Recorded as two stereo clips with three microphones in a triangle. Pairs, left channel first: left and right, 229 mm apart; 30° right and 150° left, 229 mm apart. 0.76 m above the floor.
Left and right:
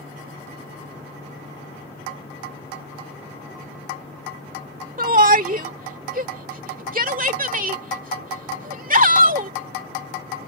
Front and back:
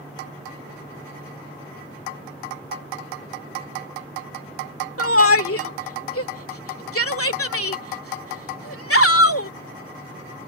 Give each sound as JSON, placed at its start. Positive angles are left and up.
{"t": 5.0, "sound": "a shout", "azimuth_deg": -35}